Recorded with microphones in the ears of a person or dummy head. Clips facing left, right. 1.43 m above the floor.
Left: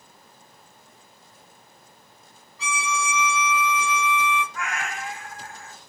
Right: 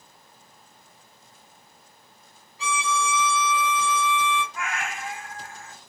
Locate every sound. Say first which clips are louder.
2.6 s a violin: right 2 dB; 20° right (ahead or behind), 1.6 m
4.5 s a cat meowing: left 1 dB; 25° right (ahead or behind), 1.1 m